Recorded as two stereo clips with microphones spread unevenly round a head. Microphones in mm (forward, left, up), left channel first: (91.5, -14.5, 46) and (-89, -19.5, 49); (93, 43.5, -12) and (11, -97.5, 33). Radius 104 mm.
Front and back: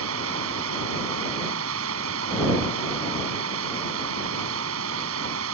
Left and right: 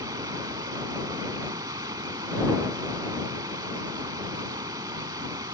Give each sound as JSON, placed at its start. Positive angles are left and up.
{"t": 0.0, "sound": "running water", "azimuth_deg": 170}